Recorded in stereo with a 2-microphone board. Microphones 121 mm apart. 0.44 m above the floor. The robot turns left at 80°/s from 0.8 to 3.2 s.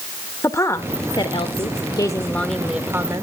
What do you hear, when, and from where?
0.4 s a woman speaking: 145° left, 0.9 m; by 3.2 s 50° right, 0.9 m